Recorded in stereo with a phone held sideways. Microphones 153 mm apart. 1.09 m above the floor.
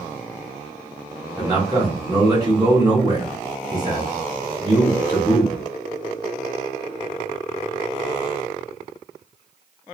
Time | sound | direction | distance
1.4 | a man speaking | 25° right (ahead or behind) | 1.4 m